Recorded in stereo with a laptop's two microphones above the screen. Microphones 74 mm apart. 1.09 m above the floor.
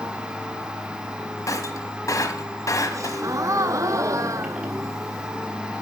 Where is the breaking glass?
50° left (ahead or behind), 1.3 m.